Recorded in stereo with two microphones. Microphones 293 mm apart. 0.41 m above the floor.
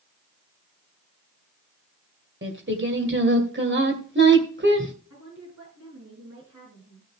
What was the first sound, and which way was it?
Singing, 40° right (ahead or behind).